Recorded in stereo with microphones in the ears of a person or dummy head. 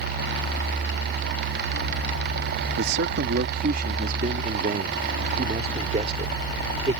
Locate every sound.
2.8 s a man speaking: 65° right (ahead or behind); by 7.0 s 35° right (ahead or behind)